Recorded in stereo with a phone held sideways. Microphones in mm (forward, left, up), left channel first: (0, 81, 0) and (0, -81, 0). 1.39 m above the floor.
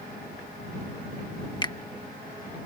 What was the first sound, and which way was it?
A finger snap, 25° left (ahead or behind).